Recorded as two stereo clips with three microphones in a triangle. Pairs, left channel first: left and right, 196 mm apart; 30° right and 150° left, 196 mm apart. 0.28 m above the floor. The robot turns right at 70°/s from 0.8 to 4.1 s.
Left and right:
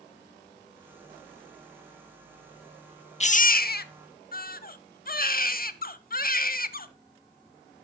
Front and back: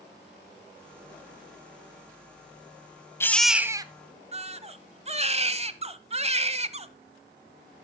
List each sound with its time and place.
3.2 s a baby crying: 45° left, 0.6 m; by 6.9 s 105° left, 0.6 m